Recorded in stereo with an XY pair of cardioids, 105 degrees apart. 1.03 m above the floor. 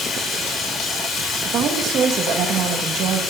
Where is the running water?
65° left, 3.5 m.